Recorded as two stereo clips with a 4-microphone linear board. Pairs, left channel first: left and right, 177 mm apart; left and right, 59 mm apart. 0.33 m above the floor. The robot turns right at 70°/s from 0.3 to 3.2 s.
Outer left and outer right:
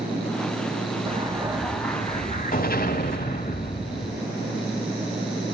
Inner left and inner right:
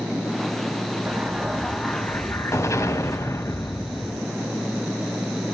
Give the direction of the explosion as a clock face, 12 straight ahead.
1 o'clock.